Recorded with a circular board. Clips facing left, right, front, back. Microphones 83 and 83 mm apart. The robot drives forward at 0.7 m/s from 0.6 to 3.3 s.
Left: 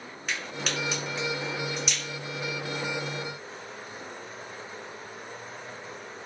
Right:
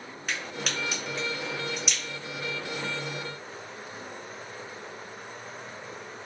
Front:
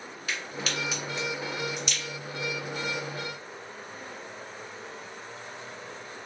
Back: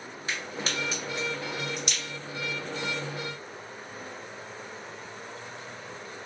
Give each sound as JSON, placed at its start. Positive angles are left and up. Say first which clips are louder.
{"t": 0.3, "sound": "a crack", "louder": "left 1 dB, even", "azimuth_deg": -175, "distance_m": 1.5}